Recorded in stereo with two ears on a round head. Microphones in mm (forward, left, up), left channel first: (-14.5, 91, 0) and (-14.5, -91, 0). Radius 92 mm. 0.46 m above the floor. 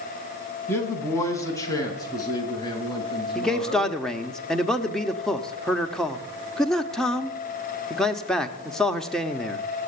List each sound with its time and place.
0.7 s a man speaking: 15° left (ahead or behind), 4 m; by 4.0 s 25° left (ahead or behind), 6 m
3.4 s a man speaking: centre (ahead or behind), 1.0 m